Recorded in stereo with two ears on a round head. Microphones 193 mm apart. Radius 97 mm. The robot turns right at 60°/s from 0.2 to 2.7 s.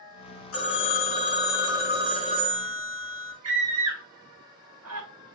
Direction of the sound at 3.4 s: 75° right (ahead or behind).